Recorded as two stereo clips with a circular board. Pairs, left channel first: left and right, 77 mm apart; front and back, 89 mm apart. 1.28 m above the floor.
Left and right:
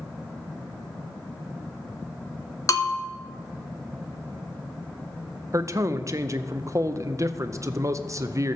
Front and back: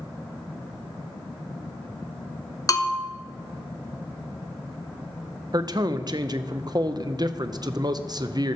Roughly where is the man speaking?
Behind right.